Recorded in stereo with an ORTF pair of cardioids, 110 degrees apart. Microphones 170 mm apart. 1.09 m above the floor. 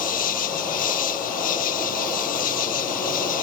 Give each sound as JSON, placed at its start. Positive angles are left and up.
{"t": 0.0, "sound": "an insect", "azimuth_deg": 55}